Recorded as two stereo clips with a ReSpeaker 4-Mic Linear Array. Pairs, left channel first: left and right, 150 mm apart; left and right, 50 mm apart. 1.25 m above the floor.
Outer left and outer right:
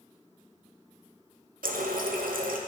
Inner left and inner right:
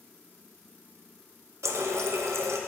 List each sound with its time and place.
1.6 s a running tap: 70° right (ahead or behind), 0.6 m